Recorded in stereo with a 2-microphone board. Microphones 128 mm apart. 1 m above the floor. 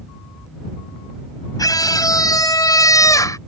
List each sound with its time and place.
1.6 s a scream: 30° left (ahead or behind); by 3.4 s 25° left (ahead or behind)